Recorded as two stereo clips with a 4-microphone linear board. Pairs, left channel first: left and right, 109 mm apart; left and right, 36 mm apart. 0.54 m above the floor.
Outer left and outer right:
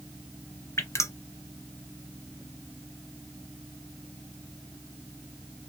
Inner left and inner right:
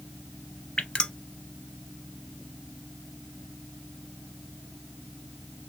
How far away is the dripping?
About 0.5 m.